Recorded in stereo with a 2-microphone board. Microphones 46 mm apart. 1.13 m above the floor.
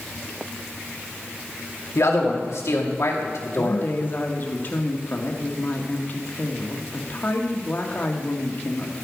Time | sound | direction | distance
1.9 | a man speaking | 80° left | 2.5 m
3.5 | a woman speaking | 45° left (ahead or behind) | 1.7 m